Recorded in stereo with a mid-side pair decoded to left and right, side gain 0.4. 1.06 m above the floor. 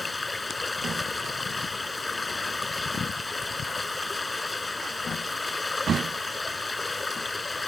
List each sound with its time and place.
0.0 s running water: 25° left